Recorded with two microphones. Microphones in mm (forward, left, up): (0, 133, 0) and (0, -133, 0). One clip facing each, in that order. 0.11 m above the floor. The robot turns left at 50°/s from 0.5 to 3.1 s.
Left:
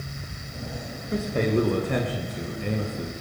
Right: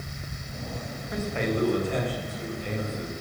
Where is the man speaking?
145° left, 8.5 m; by 3.1 s 45° left, 8.5 m.